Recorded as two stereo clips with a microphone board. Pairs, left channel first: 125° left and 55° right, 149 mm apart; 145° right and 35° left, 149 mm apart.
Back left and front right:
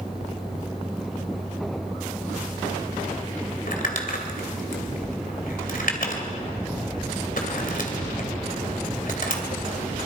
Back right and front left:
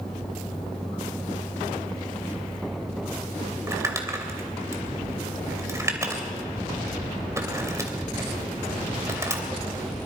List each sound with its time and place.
3.7 s crumpling: 105° left, 2.5 m